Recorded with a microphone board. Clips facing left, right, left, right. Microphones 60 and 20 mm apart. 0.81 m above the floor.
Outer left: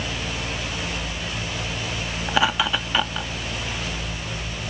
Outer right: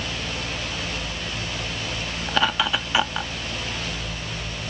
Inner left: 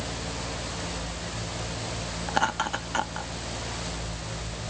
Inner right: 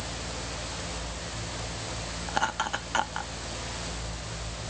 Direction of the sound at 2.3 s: 10° left (ahead or behind).